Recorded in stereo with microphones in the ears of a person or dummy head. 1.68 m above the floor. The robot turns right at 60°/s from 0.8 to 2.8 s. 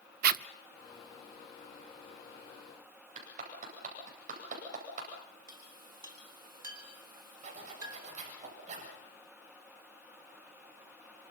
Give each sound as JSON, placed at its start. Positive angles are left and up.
{"t": 0.2, "sound": "a zipper", "side_deg": -50, "distance_m": 0.5}
{"t": 3.1, "sound": "a clap", "side_deg": -40, "distance_m": 9.0}
{"t": 5.5, "sound": "a clink", "side_deg": -25, "distance_m": 3.0}
{"t": 7.4, "sound": "a zipper", "side_deg": -35, "distance_m": 7.5}